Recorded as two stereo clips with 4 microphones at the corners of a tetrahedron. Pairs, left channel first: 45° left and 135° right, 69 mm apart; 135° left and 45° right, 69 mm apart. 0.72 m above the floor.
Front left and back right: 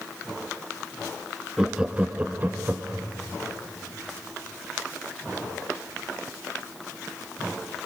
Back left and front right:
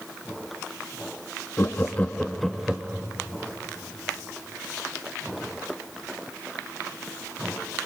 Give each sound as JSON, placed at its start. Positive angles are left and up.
{"t": 1.6, "sound": "laughter", "azimuth_deg": 150, "distance_m": 1.1}